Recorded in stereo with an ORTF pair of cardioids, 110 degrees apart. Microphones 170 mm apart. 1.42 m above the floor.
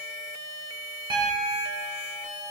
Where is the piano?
25° right, 1.5 m.